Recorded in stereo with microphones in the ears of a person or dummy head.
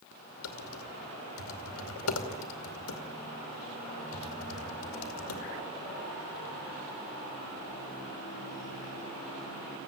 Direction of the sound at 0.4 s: 85° left.